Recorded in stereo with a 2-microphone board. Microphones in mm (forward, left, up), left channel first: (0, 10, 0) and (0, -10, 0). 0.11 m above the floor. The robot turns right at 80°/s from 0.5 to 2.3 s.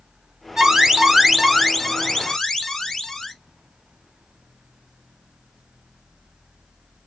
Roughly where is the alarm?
Right.